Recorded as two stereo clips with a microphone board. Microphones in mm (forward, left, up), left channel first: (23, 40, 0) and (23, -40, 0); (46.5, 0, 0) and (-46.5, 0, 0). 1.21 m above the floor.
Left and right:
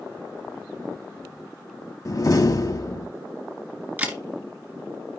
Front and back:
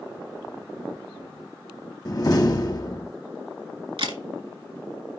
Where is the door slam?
45° left, 1.5 m.